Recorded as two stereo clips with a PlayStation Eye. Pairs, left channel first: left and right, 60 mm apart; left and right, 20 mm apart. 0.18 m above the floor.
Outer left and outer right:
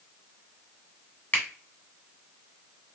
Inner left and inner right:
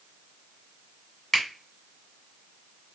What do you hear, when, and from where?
1.3 s a finger snap: 25° left (ahead or behind), 1.3 m